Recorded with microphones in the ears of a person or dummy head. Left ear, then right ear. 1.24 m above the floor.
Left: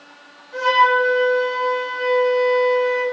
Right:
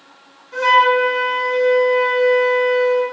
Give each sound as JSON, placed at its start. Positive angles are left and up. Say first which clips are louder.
{"t": 0.5, "sound": "a flute", "louder": "right 2 dB", "side_deg": -85, "distance_m": 1.3}